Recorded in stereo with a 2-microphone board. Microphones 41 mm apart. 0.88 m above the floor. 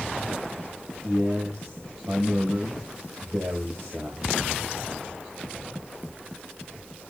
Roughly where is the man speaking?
Right.